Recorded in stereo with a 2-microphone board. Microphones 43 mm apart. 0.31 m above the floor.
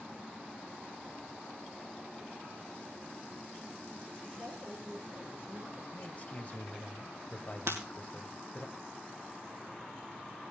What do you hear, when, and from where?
4.3 s a woman speaking: 45° right (ahead or behind), 5 m
5.9 s a man speaking: 35° left (ahead or behind), 1.2 m
7.7 s breaking glass: 75° right (ahead or behind), 2.5 m